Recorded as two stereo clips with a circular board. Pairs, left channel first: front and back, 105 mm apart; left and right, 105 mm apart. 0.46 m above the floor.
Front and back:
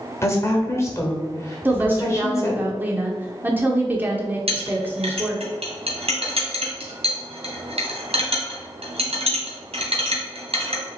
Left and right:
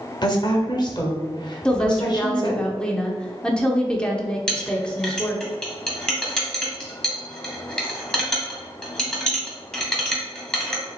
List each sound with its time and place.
0.2 s a woman speaking: 55° left, 1.2 m
1.6 s a woman speaking: 155° left, 0.7 m
4.5 s a clink: 170° left, 2 m